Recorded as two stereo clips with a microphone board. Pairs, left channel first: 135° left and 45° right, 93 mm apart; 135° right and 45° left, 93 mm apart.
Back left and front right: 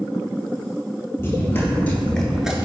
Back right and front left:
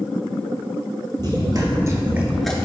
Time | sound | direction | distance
1.2 | running footsteps | 75° left | 0.9 m